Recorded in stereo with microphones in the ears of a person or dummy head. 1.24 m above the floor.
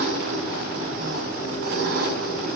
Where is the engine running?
65° right (ahead or behind), 5 m.